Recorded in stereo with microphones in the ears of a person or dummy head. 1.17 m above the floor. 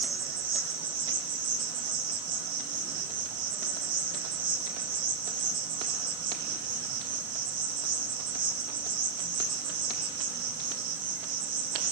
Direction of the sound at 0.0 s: 50° right (ahead or behind).